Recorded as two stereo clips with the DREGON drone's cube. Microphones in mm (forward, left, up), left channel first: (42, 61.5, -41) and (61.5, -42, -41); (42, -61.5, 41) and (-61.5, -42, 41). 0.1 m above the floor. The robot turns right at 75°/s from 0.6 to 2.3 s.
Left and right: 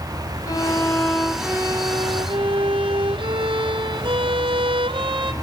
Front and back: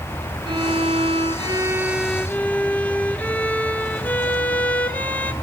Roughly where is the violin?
Behind left.